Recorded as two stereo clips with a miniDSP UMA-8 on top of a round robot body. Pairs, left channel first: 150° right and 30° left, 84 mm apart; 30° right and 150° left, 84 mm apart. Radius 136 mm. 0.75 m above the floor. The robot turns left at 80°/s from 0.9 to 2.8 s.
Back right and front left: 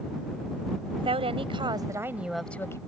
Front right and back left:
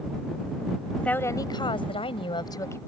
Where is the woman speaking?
50° left; by 2.8 s 95° right.